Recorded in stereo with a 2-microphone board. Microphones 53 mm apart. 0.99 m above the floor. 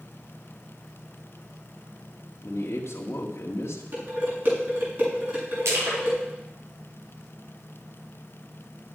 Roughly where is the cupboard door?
No cupboard door in this recording.